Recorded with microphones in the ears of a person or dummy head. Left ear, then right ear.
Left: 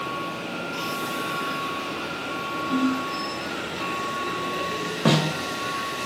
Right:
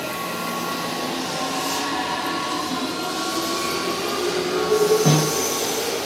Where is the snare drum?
15° left (ahead or behind), 0.6 m.